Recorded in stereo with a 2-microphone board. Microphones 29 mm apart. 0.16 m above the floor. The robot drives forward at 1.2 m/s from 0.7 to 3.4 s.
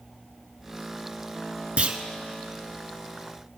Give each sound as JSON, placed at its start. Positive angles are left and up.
{"t": 1.8, "sound": "a clunk", "side_deg": -45, "distance_m": 0.7}